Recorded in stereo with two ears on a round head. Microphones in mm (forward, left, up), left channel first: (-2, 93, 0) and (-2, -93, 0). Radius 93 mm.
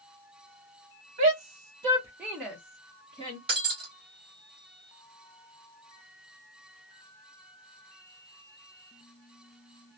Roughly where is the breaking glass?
Right.